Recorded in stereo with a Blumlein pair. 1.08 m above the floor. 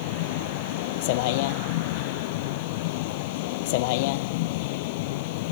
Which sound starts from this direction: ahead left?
A vehicle, at 0.0 s.